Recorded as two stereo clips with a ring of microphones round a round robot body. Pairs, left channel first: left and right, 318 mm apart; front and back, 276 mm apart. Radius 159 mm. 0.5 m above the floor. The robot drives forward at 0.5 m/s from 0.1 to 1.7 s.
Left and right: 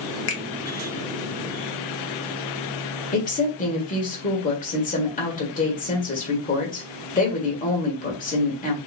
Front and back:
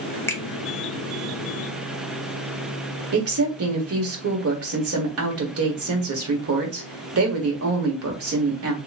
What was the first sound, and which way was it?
A finger snap, 75° left.